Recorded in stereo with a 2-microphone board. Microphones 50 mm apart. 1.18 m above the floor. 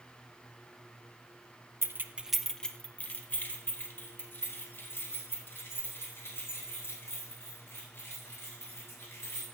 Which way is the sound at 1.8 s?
55° right (ahead or behind).